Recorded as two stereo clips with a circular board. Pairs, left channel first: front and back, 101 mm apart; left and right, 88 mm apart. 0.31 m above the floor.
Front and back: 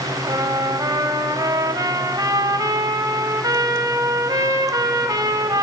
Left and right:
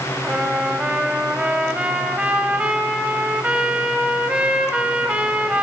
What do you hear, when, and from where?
0.2 s a trumpet: 160° right, 1.1 m